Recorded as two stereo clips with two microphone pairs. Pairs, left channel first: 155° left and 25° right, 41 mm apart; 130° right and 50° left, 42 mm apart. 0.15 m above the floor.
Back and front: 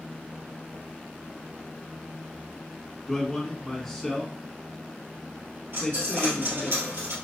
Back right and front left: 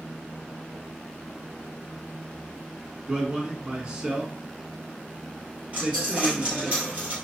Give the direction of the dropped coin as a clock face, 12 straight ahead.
12 o'clock.